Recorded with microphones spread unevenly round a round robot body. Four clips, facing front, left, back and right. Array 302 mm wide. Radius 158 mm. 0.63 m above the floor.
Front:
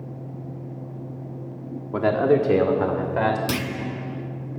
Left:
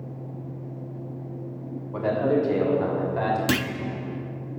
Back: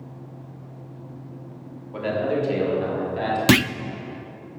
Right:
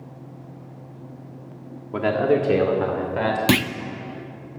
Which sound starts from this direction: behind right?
A clunk, at 3.5 s.